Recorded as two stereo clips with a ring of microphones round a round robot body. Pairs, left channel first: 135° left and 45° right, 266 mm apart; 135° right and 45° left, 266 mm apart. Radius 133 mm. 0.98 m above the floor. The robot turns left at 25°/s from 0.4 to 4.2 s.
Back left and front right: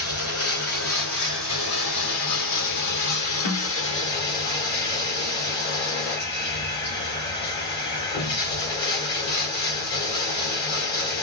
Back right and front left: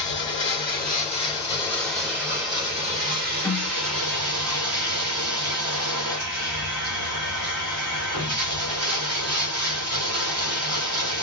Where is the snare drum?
145° left, 0.9 m; by 3.7 s 135° left, 0.9 m.